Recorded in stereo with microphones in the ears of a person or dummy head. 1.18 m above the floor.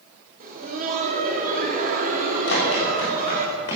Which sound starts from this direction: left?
Running footsteps, at 2.5 s.